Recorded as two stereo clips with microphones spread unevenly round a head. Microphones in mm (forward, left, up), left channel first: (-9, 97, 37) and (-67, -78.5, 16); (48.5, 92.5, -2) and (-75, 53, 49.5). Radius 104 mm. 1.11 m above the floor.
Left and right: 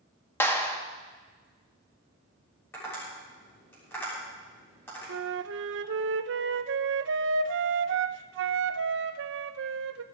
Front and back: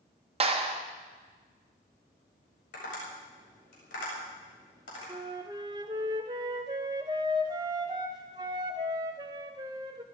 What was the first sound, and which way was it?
A clap, 150° left.